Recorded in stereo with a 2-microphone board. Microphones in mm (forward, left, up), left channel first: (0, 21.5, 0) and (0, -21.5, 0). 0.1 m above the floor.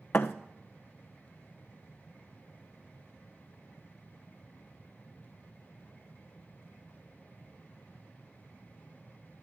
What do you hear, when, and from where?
0.1 s a thud: 55° left (ahead or behind), 1.1 m